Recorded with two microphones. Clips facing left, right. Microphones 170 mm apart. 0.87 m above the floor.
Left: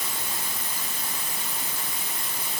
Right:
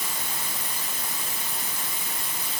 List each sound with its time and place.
Only background noise.